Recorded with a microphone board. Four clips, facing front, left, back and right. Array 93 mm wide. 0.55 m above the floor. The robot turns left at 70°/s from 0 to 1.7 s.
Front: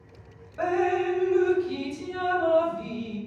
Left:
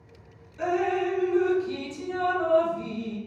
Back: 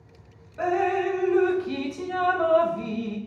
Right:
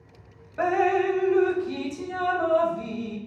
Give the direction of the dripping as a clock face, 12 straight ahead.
3 o'clock.